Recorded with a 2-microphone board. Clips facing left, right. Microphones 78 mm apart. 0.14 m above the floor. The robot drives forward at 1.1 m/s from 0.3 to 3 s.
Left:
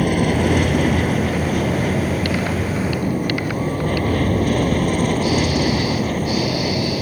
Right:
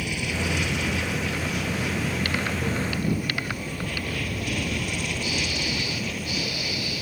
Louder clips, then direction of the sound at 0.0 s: Left 12 dB; 45° left (ahead or behind).